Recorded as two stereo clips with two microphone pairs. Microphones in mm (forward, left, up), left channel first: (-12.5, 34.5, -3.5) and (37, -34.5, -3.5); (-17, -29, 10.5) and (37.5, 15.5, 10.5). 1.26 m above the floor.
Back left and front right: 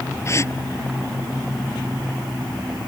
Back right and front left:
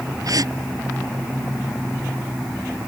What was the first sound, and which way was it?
A gasp, 70° left.